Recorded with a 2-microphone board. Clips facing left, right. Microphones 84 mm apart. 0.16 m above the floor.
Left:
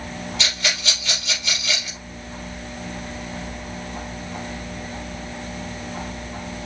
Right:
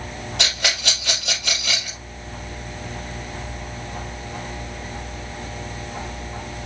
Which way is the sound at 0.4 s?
65° right (ahead or behind).